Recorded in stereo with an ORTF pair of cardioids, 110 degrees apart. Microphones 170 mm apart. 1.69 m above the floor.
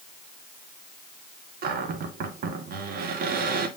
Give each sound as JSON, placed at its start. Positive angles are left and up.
{"t": 1.6, "sound": "a cupboard door", "azimuth_deg": -55, "distance_m": 2.0}